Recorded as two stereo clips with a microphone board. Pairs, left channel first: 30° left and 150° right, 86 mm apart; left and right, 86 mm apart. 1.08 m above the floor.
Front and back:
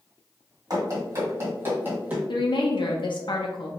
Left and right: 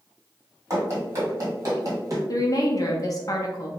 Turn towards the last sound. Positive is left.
turn(degrees=45)